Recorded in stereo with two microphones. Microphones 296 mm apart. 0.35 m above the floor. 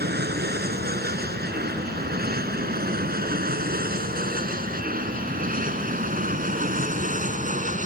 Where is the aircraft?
35° right (ahead or behind); by 7.9 s 25° right (ahead or behind).